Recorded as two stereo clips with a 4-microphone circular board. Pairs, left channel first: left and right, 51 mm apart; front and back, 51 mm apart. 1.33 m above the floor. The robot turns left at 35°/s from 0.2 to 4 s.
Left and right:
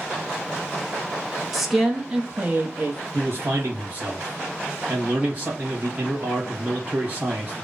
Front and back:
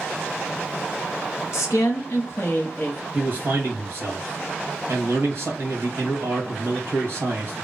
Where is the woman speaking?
Straight ahead, 0.7 m; by 3.0 s 50° right, 0.7 m.